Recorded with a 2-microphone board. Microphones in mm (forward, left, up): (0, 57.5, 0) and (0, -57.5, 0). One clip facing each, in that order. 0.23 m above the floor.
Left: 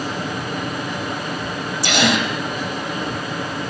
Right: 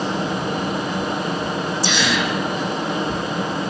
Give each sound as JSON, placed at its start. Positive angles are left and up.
{"t": 1.8, "sound": "a gasp", "side_deg": 65, "distance_m": 5.0}